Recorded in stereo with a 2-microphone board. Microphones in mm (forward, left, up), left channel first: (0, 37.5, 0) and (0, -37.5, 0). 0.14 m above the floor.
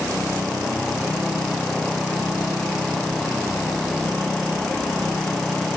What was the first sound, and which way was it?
Only background noise.